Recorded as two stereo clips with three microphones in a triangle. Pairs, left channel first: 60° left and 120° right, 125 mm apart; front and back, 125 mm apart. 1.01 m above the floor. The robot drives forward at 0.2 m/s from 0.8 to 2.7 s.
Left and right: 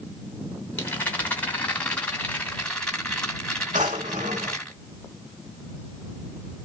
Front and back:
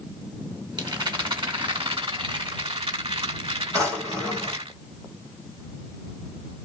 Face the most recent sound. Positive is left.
turn(degrees=-120)